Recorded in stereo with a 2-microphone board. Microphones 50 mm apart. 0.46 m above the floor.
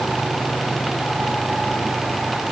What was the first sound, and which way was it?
Only background noise.